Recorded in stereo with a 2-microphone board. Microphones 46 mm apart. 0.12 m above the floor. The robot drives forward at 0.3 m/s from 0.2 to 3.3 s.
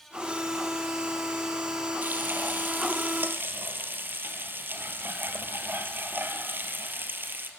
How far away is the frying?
About 1.9 m.